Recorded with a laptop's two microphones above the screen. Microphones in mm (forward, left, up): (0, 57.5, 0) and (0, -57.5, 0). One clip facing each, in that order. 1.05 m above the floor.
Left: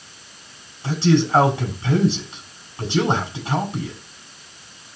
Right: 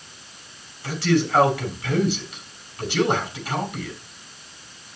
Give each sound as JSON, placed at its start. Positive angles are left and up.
{"t": 0.8, "sound": "a man speaking", "side_deg": 25, "distance_m": 6.0}